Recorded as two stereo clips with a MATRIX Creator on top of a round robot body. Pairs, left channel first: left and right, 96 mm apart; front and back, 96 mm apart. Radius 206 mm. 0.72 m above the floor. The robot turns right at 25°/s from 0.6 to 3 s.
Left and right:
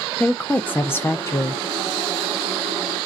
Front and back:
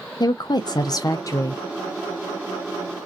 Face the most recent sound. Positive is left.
turn(degrees=80)